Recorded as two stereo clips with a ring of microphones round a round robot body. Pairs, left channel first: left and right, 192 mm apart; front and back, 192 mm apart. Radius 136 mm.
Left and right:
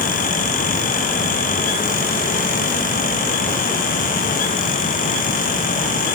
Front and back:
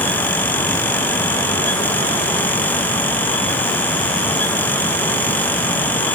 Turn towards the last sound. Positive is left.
No sound to turn to.